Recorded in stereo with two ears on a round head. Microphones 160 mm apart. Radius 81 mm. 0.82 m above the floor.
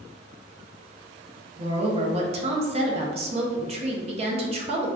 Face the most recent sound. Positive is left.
turn(degrees=-35)  # may be behind; listen again after turning